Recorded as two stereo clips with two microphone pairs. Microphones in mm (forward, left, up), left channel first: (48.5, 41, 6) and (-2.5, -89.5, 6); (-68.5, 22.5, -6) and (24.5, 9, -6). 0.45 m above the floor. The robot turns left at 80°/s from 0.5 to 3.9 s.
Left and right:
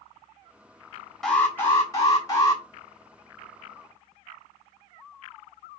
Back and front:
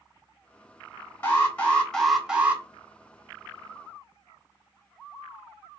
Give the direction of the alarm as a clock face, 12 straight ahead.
7 o'clock.